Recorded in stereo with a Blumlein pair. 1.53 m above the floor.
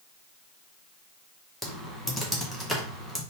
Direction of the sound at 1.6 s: 5° right.